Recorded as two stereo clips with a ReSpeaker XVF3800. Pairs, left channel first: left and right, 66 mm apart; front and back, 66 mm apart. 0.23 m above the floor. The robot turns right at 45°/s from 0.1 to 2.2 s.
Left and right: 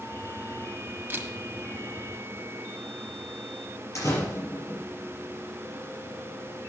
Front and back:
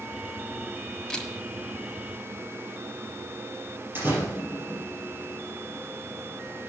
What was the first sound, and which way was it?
A camera shutter, 75° right.